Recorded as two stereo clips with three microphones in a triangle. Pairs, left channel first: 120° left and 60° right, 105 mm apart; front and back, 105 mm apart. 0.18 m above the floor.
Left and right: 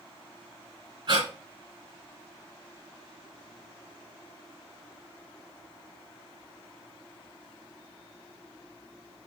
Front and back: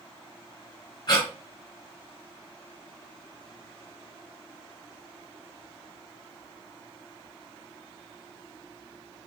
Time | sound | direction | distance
1.1 | breathing | 35° right | 2.5 m